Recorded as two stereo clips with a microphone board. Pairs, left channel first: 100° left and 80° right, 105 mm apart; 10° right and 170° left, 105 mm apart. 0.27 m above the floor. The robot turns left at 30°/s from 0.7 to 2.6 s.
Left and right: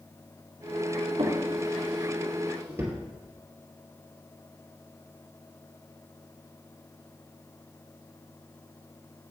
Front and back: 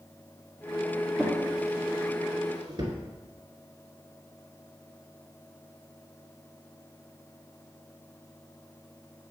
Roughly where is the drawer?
Right.